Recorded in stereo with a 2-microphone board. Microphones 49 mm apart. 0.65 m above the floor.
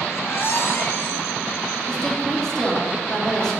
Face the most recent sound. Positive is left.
turn(degrees=10)  # may be behind; listen again after turning